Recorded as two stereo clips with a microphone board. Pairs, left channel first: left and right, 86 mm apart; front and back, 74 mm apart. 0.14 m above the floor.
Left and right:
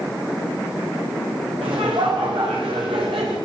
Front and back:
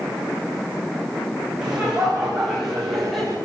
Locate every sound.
1.6 s laughter: 100° right, 9.5 m; by 3.4 s 90° right, 10.5 m